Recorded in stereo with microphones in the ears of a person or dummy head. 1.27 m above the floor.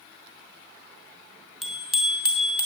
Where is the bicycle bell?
Centre (ahead or behind), 3.5 m; by 2.7 s 10° right (ahead or behind), 3 m.